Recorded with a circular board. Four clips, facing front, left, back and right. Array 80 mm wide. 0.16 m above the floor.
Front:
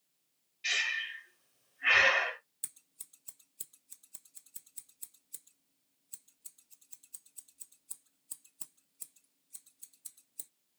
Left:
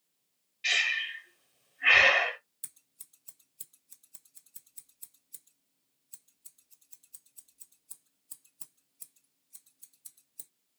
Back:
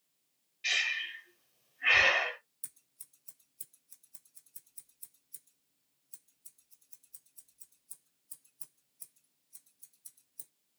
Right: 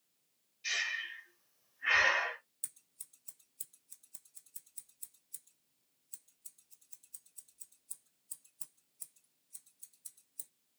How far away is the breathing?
About 0.9 m.